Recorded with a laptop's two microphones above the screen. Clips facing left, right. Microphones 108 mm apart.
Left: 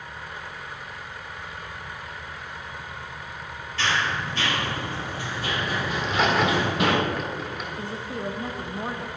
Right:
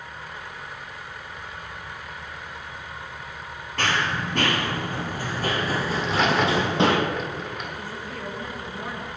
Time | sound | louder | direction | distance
3.8 | running footsteps | right 1 dB | 50° right (ahead or behind) | 1.6 m
6.0 | a crack | even | centre (ahead or behind) | 1.4 m
7.8 | a woman speaking | left 3 dB | 25° left (ahead or behind) | 1.3 m